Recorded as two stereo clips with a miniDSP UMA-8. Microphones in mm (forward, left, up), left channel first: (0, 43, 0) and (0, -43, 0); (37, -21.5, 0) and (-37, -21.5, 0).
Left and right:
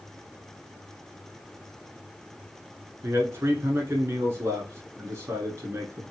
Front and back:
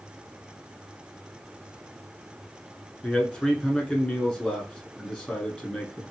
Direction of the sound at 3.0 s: 70° right.